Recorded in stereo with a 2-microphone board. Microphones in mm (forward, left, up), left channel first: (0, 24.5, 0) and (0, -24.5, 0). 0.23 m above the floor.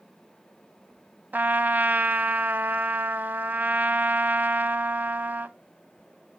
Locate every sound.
1.3 s a trumpet: 35° right (ahead or behind), 0.7 m